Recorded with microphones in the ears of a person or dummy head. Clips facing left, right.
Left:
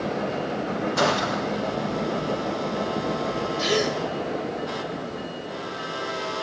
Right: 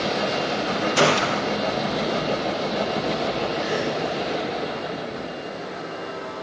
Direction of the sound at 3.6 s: 45° left (ahead or behind).